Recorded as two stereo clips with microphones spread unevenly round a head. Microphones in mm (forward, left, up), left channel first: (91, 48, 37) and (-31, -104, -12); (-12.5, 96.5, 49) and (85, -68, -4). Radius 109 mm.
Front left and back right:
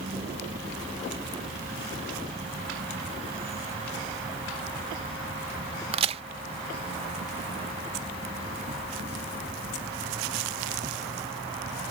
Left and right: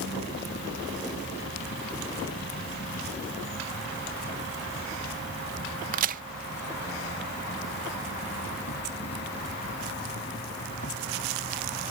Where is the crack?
75° right.